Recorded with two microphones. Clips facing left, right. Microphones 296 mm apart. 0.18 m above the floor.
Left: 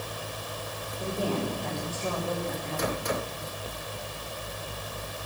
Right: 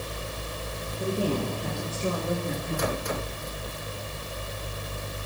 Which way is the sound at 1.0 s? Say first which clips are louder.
Right 3 dB; 20° right (ahead or behind).